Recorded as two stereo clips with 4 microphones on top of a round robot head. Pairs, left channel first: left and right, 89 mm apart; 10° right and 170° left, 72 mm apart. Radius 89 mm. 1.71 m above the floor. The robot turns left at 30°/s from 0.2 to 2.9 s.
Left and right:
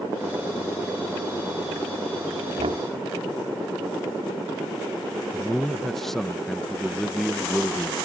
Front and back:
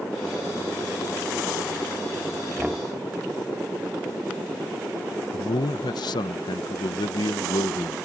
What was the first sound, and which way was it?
Knocking, 105° right.